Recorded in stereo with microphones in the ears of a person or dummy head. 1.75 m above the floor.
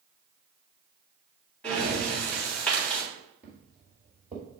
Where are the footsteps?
5° right (ahead or behind), 1.9 m; by 4.5 s 10° right (ahead or behind), 2.5 m.